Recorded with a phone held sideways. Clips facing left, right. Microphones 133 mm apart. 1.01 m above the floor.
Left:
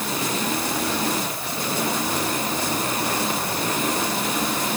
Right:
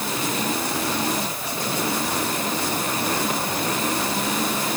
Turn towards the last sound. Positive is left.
No sound to turn to.